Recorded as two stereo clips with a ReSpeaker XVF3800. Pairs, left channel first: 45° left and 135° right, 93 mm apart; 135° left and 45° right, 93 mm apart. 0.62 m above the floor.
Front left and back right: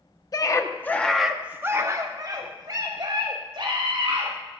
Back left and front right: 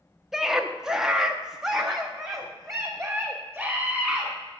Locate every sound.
0.3 s a scream: 40° left, 0.9 m; by 4.3 s 130° right, 2 m